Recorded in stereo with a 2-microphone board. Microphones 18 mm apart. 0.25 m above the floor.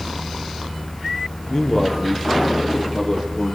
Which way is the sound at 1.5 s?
45° left (ahead or behind).